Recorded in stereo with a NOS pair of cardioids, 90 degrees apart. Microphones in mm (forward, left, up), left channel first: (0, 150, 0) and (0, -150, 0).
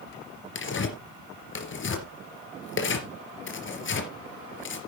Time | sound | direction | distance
0.6 | tearing paper | 45° left | 3 m